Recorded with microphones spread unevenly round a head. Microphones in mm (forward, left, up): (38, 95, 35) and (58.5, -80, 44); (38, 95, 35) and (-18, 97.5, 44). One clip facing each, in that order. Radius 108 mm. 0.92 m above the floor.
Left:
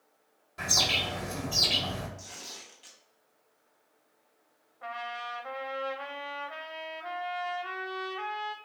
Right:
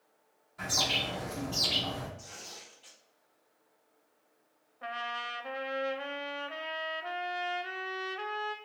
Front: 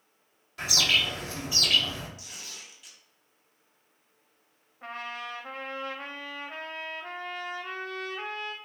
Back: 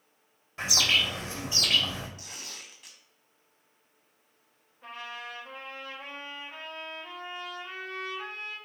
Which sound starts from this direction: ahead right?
A trumpet, at 4.8 s.